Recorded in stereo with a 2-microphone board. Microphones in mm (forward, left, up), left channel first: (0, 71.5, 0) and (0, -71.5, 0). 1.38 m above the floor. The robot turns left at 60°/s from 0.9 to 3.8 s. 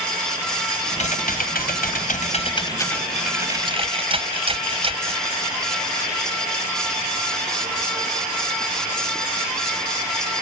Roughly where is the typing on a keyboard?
Behind left.